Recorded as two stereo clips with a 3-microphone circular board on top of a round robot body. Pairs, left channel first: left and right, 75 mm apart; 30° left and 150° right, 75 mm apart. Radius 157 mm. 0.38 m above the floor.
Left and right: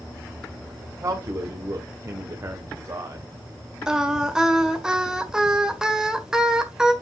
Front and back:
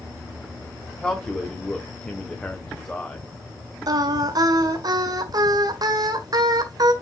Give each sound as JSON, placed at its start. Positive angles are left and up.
{"t": 1.0, "sound": "a man speaking", "azimuth_deg": -45, "distance_m": 1.8}
{"t": 3.9, "sound": "singing", "azimuth_deg": -170, "distance_m": 1.8}